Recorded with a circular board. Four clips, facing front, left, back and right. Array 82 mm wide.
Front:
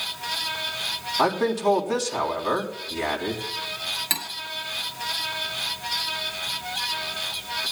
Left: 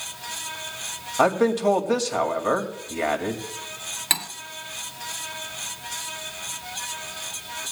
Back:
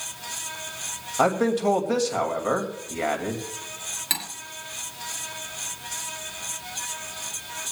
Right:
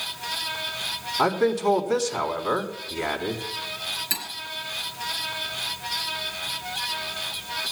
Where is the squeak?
No squeak in this recording.